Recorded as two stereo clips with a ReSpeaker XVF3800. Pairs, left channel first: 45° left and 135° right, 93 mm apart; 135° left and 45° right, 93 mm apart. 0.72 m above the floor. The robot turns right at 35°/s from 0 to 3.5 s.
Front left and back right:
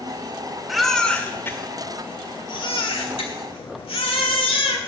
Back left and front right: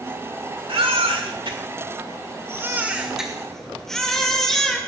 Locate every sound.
0.7 s a baby crying: 50° right, 1.7 m; by 4.8 s 50° left, 1.7 m